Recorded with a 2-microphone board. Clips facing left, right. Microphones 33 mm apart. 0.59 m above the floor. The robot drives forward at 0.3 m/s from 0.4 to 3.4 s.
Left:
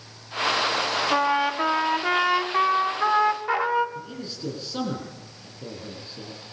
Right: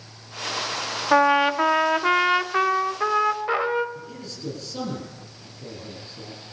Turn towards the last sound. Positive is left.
turn(degrees=30)  # may be behind; listen again after turning